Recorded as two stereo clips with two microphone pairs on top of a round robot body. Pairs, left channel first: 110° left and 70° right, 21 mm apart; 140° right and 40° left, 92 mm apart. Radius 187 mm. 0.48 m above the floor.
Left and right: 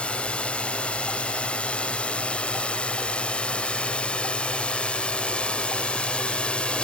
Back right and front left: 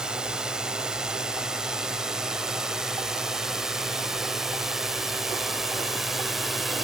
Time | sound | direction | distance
0.0 | a drone | 120° left | ?